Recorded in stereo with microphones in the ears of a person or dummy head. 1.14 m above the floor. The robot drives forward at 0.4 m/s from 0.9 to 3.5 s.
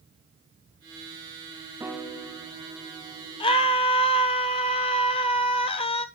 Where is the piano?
5° right (ahead or behind), 1.2 m.